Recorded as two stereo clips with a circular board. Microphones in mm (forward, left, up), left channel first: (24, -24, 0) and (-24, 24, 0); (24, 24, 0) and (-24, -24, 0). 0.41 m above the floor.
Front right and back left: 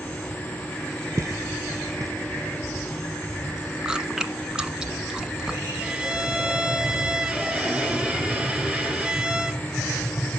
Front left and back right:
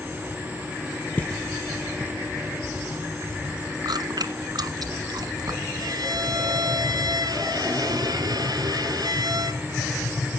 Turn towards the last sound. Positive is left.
turn(degrees=-155)